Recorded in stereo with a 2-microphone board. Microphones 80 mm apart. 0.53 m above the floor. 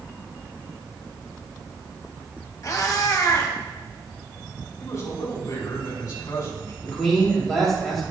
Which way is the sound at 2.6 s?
45° left (ahead or behind).